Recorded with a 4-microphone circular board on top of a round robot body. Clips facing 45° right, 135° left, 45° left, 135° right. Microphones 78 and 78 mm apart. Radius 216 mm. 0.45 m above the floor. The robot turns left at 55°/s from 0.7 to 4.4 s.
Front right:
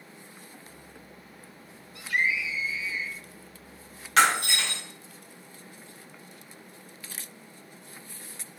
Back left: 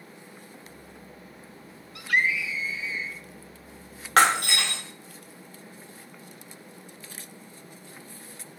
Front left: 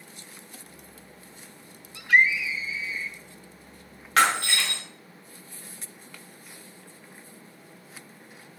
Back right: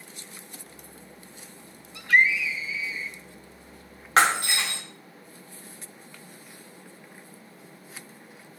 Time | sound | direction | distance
1.9 | a scream | 140° left | 2 m
4.2 | breaking glass | 165° left | 2 m